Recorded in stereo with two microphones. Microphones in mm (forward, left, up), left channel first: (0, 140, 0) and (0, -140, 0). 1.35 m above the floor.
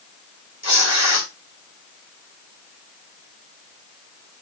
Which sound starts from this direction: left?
Tearing paper, at 0.6 s.